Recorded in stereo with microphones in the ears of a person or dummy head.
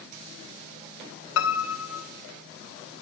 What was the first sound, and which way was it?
A piano, 80° left.